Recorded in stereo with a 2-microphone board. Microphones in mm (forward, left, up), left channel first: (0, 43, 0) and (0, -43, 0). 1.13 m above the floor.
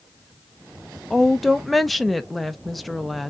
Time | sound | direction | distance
1.1 | a woman speaking | centre (ahead or behind) | 0.7 m